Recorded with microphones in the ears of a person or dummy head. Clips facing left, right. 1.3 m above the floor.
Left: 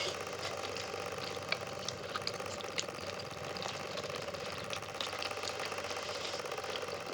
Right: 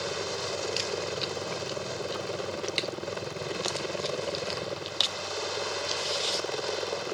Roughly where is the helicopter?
Right.